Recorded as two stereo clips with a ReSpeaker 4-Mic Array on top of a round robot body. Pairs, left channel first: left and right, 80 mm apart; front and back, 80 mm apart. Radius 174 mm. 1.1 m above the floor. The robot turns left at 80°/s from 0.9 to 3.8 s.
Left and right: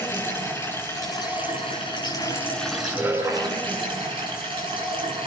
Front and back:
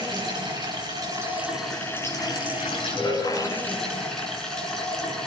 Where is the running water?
150° left, 9 m; by 5.3 s 85° right, 9 m.